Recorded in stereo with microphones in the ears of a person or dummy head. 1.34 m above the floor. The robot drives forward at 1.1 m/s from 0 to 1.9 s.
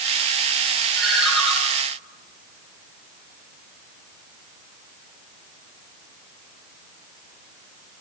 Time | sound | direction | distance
0.9 | a ringtone | centre (ahead or behind) | 7 m